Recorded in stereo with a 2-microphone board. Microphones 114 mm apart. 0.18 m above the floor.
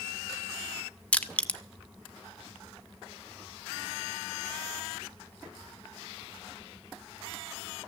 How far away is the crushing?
About 0.6 m.